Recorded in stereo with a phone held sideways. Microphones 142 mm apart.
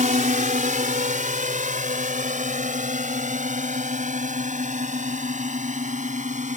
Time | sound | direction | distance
0.0 | a drone | 65° right (ahead or behind) | ?